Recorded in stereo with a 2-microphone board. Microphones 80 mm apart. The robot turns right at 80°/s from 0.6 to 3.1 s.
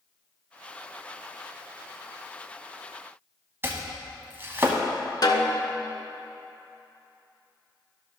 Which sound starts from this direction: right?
Chopping, at 3.6 s.